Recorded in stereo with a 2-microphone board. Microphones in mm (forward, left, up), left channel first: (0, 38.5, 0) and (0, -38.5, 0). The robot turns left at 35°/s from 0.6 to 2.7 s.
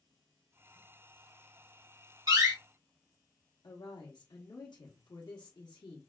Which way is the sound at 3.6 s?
80° left.